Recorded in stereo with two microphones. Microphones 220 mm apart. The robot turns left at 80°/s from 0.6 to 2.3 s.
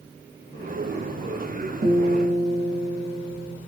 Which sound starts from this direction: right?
A guitar, at 1.8 s.